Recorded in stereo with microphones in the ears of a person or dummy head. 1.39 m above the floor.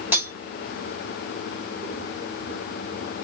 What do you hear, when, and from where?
0.1 s cutlery clinking: 5° right (ahead or behind), 1.2 m